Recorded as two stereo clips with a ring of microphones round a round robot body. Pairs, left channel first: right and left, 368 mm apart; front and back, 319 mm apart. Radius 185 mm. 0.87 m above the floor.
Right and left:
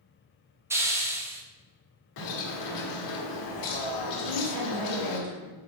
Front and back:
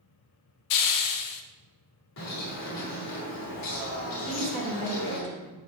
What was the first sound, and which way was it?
A hiss, 5° left.